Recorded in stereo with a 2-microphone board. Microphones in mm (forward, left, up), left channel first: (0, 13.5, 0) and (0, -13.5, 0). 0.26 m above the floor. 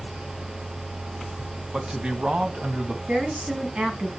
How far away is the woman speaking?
About 2.5 m.